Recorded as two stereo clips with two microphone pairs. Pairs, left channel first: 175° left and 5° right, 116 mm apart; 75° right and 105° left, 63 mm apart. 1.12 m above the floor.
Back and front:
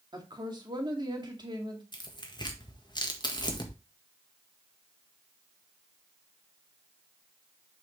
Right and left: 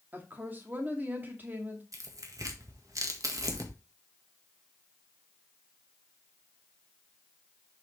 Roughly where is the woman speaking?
Ahead left.